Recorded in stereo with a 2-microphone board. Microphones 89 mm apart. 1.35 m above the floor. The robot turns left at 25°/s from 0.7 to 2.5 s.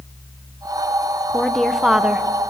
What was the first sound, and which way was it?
A woman speaking, 10° left (ahead or behind).